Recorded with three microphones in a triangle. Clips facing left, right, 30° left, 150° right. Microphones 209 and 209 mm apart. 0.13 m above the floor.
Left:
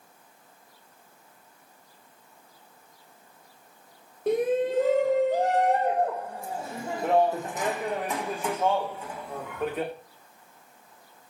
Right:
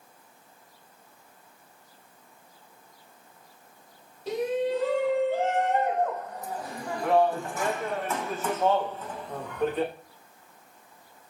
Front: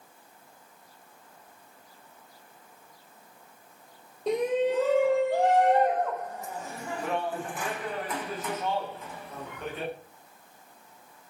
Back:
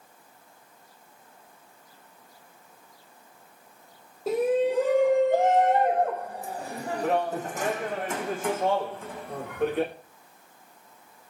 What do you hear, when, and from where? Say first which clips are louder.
4.3 s a shout: left 3 dB, back 2 dB; 125° left, 4 m; by 9.9 s 175° left, 8 m